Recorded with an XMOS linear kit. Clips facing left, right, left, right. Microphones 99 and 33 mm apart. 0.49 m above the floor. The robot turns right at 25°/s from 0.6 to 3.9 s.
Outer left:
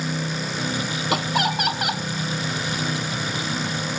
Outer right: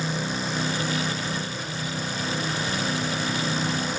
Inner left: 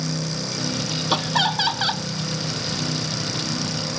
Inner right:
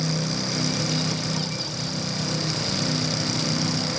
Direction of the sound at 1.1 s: 80° left.